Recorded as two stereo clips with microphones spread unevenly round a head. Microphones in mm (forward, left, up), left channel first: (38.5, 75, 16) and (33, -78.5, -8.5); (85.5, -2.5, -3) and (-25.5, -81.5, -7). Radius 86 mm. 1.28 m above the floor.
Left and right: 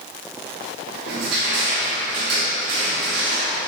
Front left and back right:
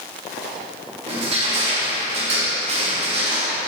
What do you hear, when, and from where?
1.1 s crushing: 105° right, 2.5 m